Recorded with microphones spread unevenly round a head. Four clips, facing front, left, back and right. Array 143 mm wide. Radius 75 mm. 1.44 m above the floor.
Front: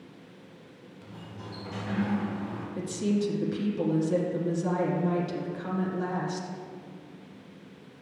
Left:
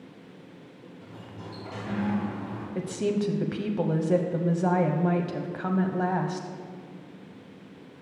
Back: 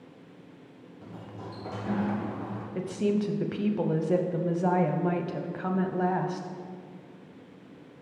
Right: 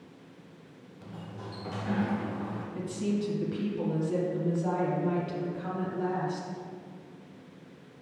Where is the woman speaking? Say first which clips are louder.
Left 5 dB, back 1 dB; 115° left, 0.6 m.